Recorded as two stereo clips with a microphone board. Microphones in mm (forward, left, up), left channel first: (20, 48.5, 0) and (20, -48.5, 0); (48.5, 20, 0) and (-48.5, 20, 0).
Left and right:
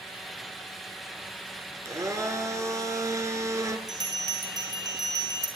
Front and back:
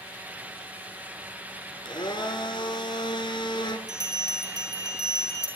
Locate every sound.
1.9 s a blender: 35° right, 2.5 m
3.9 s a bell: 135° right, 4.5 m